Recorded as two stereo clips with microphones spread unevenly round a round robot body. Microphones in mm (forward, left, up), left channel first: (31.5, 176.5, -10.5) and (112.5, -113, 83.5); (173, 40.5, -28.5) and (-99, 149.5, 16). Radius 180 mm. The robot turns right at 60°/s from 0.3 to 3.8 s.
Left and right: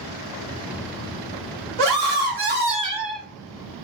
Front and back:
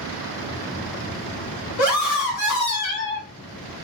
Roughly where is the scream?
Ahead right.